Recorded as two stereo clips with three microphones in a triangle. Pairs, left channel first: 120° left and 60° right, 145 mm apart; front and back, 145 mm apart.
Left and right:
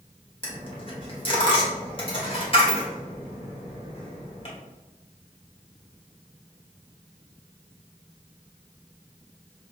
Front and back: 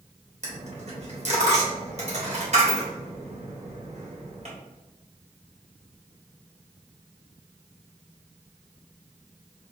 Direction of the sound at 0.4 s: 160° left.